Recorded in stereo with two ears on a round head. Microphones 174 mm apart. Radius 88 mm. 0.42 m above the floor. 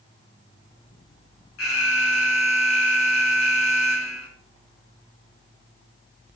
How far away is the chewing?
No chewing in this recording.